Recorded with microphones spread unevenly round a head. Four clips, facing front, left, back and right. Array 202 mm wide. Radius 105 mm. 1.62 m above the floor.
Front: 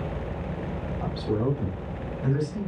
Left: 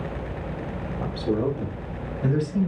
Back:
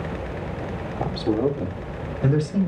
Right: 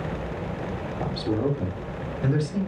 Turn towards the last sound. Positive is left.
turn(degrees=-170)